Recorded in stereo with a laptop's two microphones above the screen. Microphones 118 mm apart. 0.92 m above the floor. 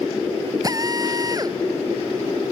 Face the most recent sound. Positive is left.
turn(degrees=-30)  # may be behind; listen again after turning